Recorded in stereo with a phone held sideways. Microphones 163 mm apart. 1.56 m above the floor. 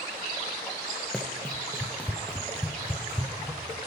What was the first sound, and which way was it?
Running footsteps, centre (ahead or behind).